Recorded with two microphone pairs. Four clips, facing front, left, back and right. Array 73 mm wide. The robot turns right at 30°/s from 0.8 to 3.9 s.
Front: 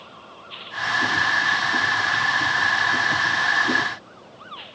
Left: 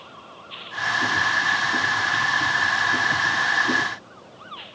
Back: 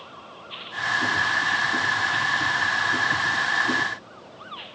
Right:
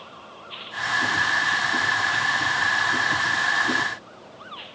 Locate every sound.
Only background noise.